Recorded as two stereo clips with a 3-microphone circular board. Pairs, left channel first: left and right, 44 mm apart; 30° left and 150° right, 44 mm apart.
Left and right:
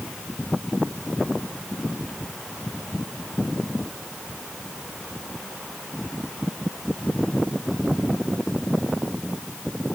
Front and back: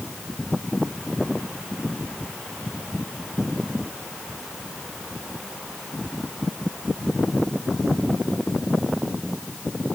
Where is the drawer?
I don't hear a drawer.